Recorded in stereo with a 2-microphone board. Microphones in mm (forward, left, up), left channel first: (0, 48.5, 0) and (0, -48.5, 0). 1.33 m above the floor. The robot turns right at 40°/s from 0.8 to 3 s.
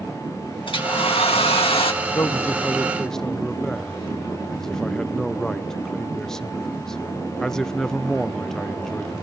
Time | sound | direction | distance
0.7 | a hair dryer | 65° left | 1.7 m
2.0 | a man speaking | 135° left | 0.6 m